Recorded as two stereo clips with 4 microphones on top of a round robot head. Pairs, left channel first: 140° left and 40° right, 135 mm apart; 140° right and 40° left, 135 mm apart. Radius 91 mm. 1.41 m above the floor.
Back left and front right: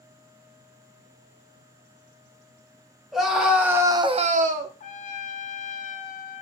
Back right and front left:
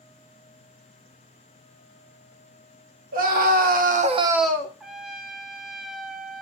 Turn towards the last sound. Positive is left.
turn(degrees=125)